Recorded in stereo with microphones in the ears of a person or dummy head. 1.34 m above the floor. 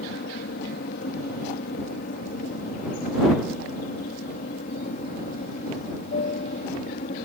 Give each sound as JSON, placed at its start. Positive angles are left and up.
{"t": 0.0, "sound": "an aircraft", "side_deg": 50}